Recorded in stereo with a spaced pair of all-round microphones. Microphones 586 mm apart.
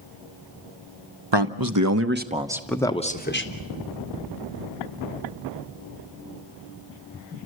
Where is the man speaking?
45° right (ahead or behind), 0.9 m; by 3.6 s 25° left (ahead or behind), 1.2 m.